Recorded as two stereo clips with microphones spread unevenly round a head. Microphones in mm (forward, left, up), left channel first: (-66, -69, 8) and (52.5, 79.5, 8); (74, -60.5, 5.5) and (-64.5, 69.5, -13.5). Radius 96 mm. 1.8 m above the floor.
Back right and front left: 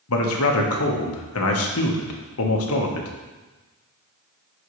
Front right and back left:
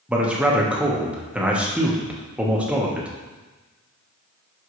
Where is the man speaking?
140° right, 1.4 m.